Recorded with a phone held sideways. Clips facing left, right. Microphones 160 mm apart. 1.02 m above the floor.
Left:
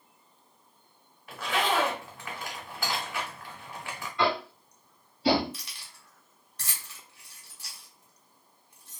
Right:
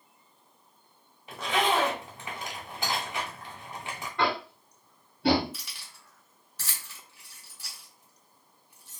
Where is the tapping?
55° right (ahead or behind), 1.3 m.